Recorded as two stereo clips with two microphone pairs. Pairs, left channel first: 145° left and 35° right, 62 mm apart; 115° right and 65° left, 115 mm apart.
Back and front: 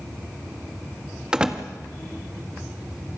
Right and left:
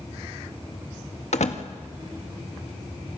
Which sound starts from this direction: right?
A door slam, at 1.3 s.